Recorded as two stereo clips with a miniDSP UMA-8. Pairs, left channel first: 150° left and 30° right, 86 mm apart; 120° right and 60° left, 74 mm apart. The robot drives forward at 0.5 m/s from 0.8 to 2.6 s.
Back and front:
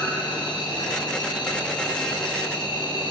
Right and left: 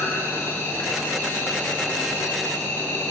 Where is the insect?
Straight behind, 4 m.